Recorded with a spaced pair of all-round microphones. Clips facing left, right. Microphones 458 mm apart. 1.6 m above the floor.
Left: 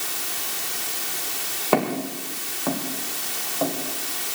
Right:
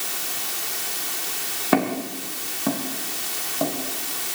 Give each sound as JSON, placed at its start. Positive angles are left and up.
{"t": 1.7, "sound": "footsteps", "side_deg": -35, "distance_m": 6.0}